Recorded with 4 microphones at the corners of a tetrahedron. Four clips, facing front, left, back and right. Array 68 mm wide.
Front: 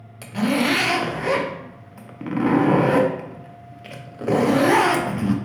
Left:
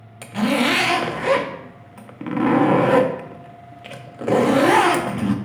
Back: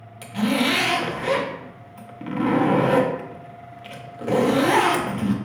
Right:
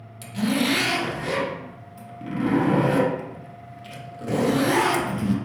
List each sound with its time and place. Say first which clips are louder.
0.2 s a zipper: left 4 dB, front 1 dB; 65° left, 0.5 m